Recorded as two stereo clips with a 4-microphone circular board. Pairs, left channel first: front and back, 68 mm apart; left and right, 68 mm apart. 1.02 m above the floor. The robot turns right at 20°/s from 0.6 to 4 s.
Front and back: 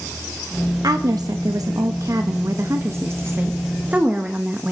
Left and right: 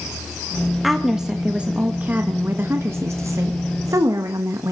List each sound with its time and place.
0.8 s a woman speaking: 175° right, 1.3 m; by 4.7 s 115° right, 1.3 m